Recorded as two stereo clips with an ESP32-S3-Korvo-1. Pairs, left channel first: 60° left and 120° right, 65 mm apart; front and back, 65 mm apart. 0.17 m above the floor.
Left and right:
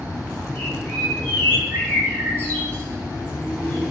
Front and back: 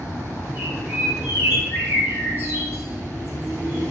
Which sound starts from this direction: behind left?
A bird, at 0.6 s.